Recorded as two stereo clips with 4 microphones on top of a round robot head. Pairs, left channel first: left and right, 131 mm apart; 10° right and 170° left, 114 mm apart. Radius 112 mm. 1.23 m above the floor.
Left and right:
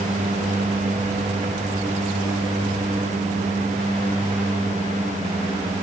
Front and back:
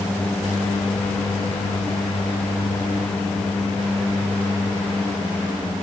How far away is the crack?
I don't hear a crack.